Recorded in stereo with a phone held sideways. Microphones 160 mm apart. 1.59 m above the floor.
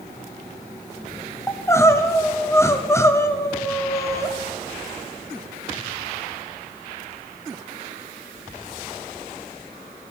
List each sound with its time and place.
1.5 s crying: 15° left (ahead or behind), 0.7 m